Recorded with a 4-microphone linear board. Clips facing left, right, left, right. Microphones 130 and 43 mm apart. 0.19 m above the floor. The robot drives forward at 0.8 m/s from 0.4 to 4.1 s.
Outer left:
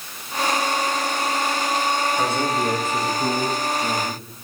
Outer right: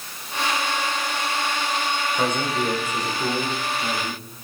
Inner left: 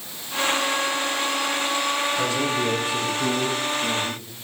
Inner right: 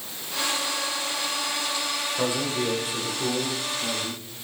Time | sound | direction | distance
2.1 | a man speaking | 20° right (ahead or behind) | 8.5 m